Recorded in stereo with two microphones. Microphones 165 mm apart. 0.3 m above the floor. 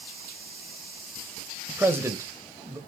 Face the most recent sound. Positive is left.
turn(degrees=-20)  # may be behind; listen again after turning